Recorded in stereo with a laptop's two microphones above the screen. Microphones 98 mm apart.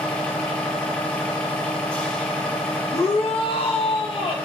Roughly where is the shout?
Left.